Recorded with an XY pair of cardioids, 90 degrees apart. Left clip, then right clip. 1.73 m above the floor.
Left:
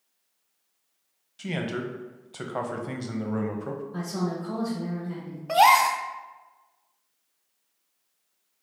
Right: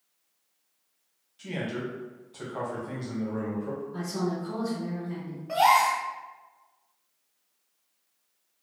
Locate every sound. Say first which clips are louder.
1.4 s a man speaking: left 2 dB; 65° left, 0.8 m
3.9 s a woman speaking: right 1 dB; 35° left, 1.3 m
5.5 s a gasp: left 3 dB; 65° left, 0.5 m